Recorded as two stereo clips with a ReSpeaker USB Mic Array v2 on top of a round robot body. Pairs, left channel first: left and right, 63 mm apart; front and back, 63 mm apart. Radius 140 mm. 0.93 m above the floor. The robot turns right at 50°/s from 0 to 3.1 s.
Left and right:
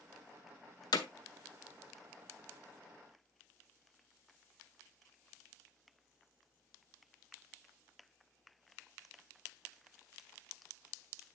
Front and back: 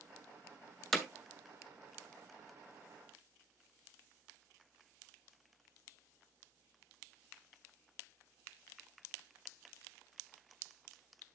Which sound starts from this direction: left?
Hammering, at 0.9 s.